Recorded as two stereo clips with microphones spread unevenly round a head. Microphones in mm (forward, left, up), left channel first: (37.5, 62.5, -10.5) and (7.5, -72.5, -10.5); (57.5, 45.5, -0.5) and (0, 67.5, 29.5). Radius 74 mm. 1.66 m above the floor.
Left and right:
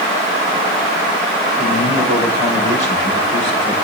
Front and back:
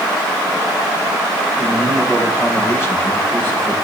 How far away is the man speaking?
About 6 m.